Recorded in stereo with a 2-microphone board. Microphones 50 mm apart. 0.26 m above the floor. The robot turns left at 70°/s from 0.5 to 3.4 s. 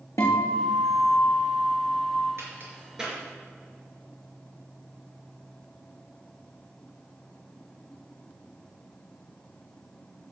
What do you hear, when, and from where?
0.2 s a guitar: 100° left, 3.5 m; by 2.2 s 15° right, 3.5 m
2.4 s a crack: 55° right (ahead or behind), 4.5 m; by 3.2 s centre (ahead or behind), 4.5 m